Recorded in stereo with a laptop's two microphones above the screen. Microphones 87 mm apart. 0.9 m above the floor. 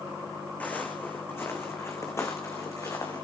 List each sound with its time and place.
0.6 s footsteps: 20° left (ahead or behind), 3.5 m; by 3.2 s 40° left (ahead or behind), 4.5 m